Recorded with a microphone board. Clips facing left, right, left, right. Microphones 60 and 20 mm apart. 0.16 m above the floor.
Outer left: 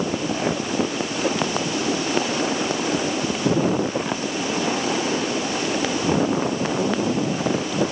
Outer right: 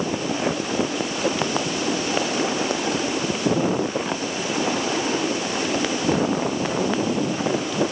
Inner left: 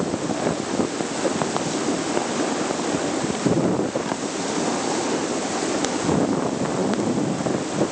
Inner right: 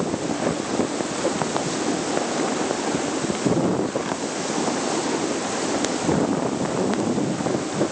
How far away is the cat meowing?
I don't hear a cat meowing.